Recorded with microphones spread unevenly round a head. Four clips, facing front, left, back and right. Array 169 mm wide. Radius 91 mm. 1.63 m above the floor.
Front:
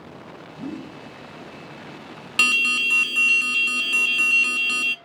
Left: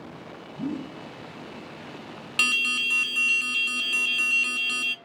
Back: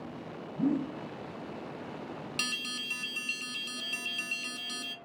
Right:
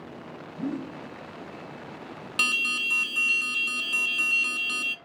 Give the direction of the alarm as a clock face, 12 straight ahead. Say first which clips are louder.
Left 1 dB, front 13 dB; 12 o'clock.